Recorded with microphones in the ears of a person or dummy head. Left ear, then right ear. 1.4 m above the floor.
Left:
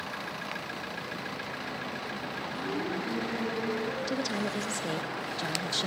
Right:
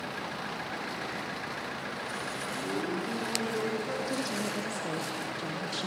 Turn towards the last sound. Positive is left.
turn(degrees=20)  # may be behind; listen again after turning